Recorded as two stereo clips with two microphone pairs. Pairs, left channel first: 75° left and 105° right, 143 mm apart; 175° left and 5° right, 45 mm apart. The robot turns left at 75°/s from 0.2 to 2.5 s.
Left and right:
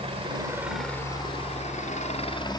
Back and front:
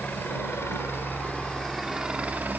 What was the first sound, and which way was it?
A helicopter, 150° right.